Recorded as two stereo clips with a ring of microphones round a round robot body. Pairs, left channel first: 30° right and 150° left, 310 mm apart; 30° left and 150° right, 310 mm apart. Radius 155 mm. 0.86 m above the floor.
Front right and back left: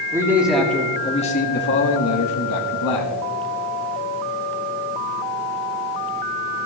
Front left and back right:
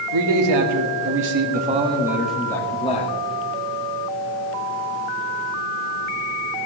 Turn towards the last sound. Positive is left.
turn(degrees=-40)